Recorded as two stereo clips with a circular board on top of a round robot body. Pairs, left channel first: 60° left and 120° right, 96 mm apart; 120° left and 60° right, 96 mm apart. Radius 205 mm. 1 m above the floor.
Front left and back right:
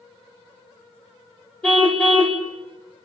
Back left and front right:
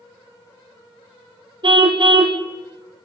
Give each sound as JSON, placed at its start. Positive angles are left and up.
{"t": 1.6, "sound": "a car horn", "azimuth_deg": -20, "distance_m": 3.0}